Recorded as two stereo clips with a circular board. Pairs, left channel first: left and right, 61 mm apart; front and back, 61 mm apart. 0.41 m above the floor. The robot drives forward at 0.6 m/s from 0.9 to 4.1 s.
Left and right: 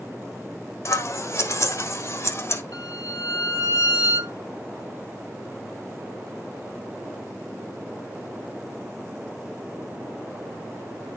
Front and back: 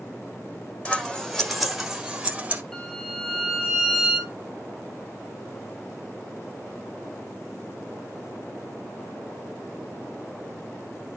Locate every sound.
0.8 s scissors: 70° left, 1.4 m; by 2.6 s 125° left, 1.5 m
2.7 s a violin: 80° left, 2 m; by 4.3 s 105° left, 2 m